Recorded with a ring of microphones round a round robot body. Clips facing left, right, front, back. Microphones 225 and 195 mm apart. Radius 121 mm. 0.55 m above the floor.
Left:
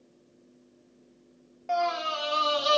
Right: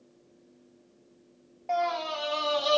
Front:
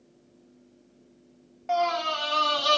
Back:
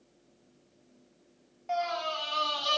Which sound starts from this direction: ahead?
A scream, at 1.7 s.